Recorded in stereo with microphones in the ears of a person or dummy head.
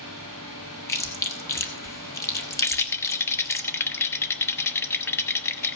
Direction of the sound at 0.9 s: 15° left (ahead or behind).